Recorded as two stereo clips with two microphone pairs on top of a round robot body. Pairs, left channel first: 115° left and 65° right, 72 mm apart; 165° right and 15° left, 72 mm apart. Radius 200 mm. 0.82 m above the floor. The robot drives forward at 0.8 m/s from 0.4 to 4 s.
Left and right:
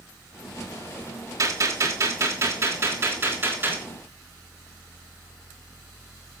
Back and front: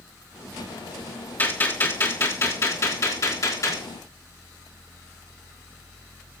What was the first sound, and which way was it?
A gunshot, 100° right.